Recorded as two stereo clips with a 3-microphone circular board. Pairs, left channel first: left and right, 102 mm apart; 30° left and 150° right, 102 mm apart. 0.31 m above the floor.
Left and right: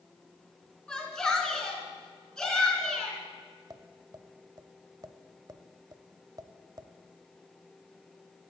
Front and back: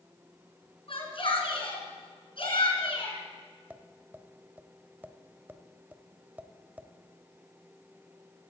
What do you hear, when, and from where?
0.9 s a shout: 10° left, 4 m
3.7 s tapping: 85° right, 0.8 m